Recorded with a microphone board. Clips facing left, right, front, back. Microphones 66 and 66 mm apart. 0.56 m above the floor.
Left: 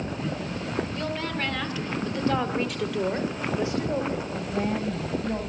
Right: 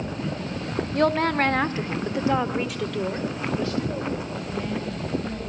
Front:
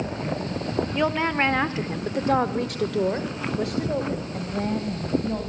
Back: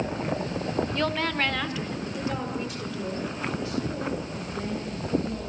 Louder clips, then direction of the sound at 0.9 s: Right 9 dB, front 7 dB; 75° right.